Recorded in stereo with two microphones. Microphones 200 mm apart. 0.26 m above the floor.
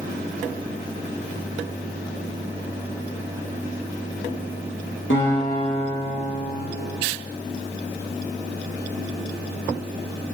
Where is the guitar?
80° left, 4.5 m.